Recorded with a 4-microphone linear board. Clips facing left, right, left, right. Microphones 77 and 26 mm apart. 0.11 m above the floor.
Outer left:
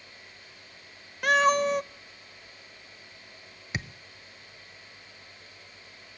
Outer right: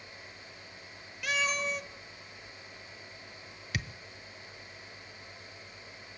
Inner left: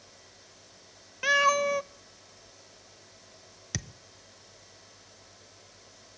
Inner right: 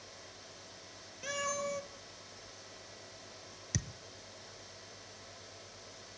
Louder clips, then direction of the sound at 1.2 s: Outer left 11 dB, inner left 14 dB; 55° left (ahead or behind).